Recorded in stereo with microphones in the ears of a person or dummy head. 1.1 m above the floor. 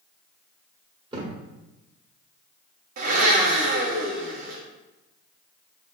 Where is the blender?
45° right (ahead or behind), 0.8 m.